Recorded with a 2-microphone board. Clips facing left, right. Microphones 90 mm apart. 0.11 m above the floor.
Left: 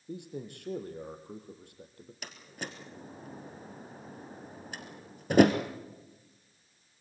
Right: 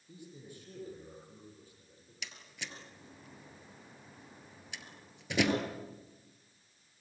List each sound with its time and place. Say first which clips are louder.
0.1 s a man speaking: left 10 dB; 70° left (ahead or behind), 3.5 m
2.2 s a door slam: left 5 dB; 45° left (ahead or behind), 2.0 m